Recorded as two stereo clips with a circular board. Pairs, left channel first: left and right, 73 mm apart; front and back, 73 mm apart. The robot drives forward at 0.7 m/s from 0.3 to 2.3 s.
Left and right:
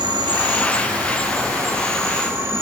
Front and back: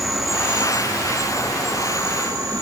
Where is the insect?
95° right, 0.9 m; by 2.6 s 150° right, 1.7 m.